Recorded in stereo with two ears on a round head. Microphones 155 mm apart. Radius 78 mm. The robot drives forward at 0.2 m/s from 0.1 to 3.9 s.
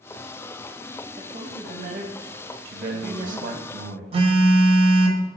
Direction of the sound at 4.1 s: 30° right (ahead or behind).